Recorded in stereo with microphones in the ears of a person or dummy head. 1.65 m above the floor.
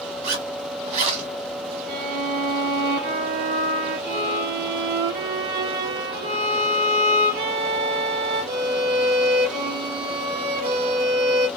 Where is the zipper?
40° right (ahead or behind), 1.3 m.